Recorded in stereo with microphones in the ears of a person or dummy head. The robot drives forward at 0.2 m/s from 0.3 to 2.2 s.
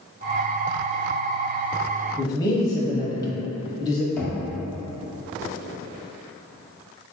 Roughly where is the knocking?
Centre.